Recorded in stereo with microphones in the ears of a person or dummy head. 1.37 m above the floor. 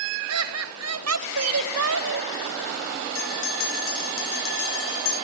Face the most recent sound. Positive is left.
turn(degrees=80)